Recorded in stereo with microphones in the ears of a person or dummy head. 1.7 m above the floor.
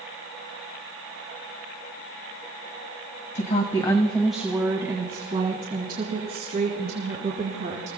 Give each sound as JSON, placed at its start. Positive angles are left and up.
{"t": 3.4, "sound": "a woman speaking", "side_deg": 55, "distance_m": 1.6}